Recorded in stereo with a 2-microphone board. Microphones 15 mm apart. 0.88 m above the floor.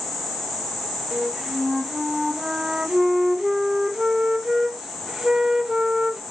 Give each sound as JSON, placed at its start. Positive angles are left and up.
{"t": 1.1, "sound": "a flute", "side_deg": -40, "distance_m": 1.2}